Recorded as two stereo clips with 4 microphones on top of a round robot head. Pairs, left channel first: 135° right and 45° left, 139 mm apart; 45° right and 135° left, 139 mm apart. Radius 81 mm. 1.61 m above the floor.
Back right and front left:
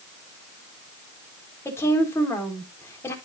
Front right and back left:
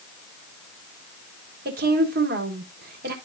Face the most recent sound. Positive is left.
turn(degrees=155)